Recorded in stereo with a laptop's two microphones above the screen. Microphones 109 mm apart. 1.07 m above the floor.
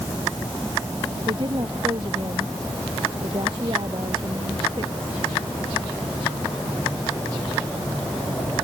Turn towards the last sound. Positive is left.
turn(degrees=-50)  # may be behind; listen again after turning